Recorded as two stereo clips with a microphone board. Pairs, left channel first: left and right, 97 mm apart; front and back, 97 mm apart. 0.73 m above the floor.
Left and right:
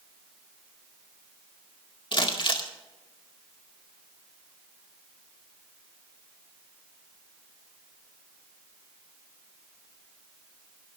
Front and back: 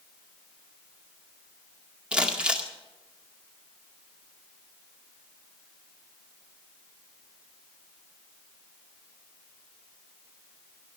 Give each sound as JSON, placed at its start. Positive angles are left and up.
{"t": 2.1, "sound": "crumpling", "azimuth_deg": 100, "distance_m": 2.0}